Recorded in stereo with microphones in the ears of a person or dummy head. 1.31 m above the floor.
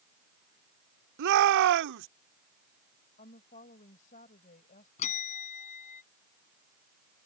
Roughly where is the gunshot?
No gunshot in this recording.